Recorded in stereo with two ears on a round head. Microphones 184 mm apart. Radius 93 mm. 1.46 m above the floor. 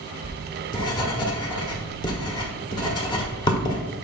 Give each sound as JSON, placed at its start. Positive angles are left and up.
{"t": 0.2, "sound": "writing", "side_deg": 25, "distance_m": 1.2}